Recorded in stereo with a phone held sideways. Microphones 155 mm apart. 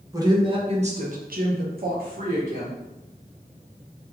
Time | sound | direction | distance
0.1 | a woman speaking | 25° right (ahead or behind) | 1.0 m